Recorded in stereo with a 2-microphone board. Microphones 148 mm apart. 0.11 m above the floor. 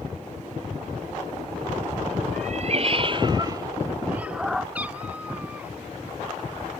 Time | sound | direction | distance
2.3 | a cat meowing | 60° right (ahead or behind) | ?
4.8 | a cat meowing | 10° right (ahead or behind) | ?